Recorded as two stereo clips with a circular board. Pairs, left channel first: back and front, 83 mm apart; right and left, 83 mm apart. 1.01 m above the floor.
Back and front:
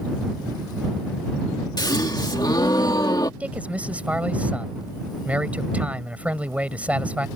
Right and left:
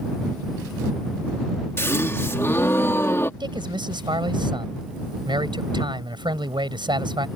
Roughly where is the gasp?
Behind right.